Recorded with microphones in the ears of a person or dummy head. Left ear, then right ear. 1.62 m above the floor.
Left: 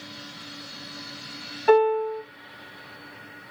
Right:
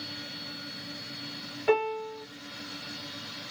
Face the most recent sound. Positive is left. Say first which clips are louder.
# left 8 dB
turn(degrees=20)  # may be behind; listen again after turning